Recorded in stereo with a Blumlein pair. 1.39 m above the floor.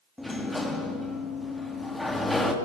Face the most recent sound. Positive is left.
turn(degrees=5)